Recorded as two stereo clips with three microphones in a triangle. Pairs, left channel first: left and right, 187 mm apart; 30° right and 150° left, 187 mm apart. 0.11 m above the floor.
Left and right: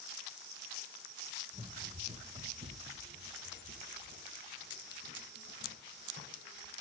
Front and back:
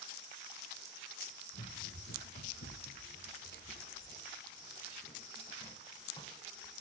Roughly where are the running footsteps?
Ahead.